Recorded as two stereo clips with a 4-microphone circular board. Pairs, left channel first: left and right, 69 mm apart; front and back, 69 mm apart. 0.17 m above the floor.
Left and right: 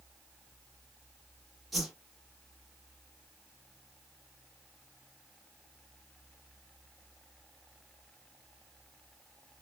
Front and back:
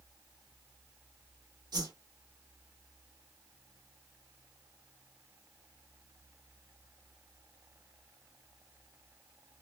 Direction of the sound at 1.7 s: Straight behind.